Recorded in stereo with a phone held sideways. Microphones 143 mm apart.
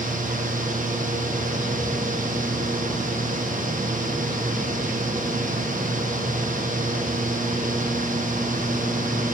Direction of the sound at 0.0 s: 65° right (ahead or behind).